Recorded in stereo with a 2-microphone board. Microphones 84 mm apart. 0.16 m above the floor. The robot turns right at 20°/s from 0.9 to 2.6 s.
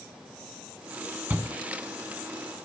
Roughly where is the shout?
Centre.